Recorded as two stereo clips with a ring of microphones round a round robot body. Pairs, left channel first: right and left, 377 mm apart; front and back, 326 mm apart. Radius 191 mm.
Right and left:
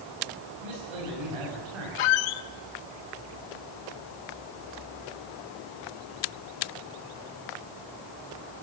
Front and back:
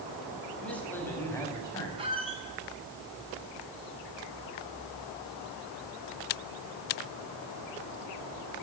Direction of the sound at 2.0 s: 105° right.